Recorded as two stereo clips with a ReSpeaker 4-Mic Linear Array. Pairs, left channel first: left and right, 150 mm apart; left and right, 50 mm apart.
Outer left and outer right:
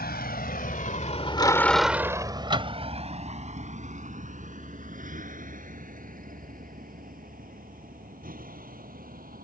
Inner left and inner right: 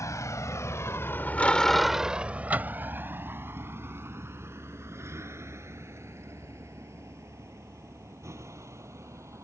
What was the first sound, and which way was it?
A vehicle, 80° left.